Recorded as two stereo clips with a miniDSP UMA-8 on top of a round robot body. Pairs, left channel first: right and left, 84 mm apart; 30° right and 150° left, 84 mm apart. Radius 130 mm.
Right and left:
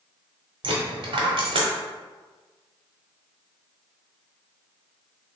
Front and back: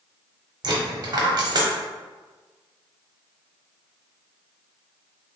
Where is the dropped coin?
110° left, 0.7 m.